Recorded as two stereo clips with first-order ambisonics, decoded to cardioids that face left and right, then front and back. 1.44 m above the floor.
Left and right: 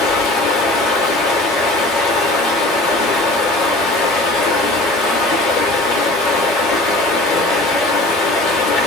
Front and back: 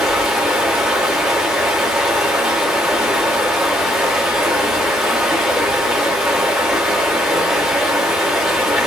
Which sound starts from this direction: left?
Running water, at 0.0 s.